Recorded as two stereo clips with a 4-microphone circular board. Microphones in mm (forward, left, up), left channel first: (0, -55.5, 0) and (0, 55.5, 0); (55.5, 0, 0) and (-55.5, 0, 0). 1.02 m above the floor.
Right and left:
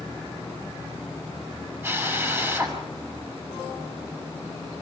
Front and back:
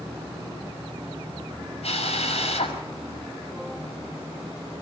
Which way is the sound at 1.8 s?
20° left.